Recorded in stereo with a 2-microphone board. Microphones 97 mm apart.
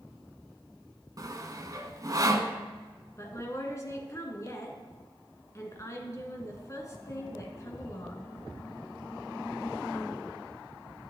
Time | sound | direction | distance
1.2 | sawing | 40° right (ahead or behind) | 0.8 m
3.2 | a woman speaking | 30° left (ahead or behind) | 1.6 m